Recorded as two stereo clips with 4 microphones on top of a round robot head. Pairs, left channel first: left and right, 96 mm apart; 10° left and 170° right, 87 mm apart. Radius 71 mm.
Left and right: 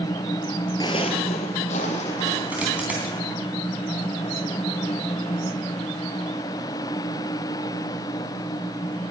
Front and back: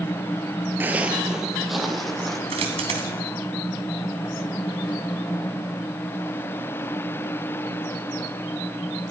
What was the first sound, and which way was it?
Footsteps, 135° left.